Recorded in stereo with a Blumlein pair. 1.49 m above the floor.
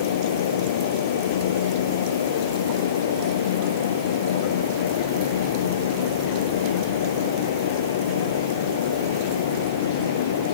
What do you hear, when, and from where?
0.0 s a fan: 60° left